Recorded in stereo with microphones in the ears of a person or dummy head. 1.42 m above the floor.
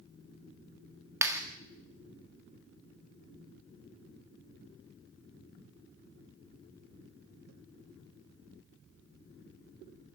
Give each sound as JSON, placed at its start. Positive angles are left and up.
{"t": 1.2, "sound": "a clap", "side_deg": -20, "distance_m": 1.9}